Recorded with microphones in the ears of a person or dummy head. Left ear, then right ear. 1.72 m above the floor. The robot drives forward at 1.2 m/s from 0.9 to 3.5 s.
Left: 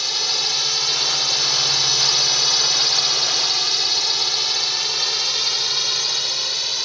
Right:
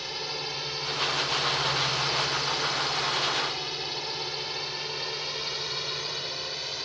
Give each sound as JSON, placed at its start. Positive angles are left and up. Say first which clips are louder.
{"t": 0.0, "sound": "a drone", "louder": "left 12 dB", "side_deg": 50}